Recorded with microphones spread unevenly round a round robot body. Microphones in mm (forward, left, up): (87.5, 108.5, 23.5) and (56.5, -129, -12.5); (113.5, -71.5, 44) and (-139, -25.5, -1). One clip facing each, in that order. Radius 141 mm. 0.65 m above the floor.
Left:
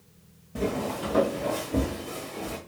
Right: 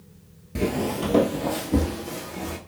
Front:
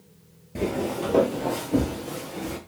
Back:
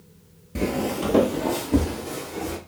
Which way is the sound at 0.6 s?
115° right.